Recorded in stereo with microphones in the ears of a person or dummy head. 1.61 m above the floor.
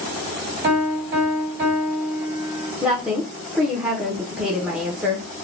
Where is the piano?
50° right (ahead or behind), 1.5 m.